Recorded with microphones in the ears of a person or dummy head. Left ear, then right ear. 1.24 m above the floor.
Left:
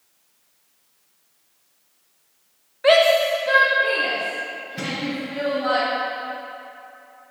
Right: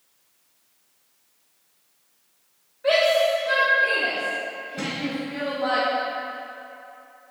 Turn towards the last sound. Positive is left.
turn(degrees=25)  # may be behind; listen again after turning